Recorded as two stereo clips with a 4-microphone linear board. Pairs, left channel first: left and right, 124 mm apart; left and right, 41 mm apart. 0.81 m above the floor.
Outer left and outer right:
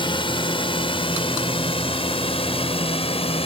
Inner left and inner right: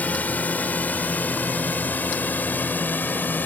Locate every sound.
0.0 s a drone: 45° left (ahead or behind); by 3.5 s 50° left (ahead or behind)